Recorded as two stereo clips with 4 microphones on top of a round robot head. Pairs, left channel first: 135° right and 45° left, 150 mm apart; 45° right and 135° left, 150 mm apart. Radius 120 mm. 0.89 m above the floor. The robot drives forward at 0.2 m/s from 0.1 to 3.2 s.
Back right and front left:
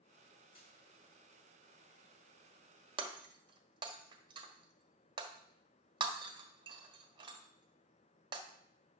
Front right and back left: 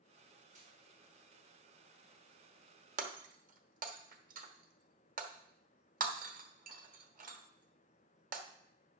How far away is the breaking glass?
About 1.2 m.